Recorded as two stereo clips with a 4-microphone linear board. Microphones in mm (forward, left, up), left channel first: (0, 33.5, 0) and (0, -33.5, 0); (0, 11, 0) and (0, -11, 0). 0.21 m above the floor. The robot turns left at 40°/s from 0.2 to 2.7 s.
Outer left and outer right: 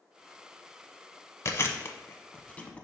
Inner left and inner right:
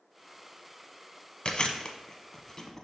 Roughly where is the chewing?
Left.